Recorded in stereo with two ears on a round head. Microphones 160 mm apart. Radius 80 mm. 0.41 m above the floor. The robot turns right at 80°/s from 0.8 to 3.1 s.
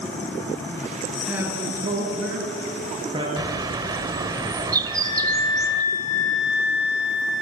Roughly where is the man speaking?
Behind.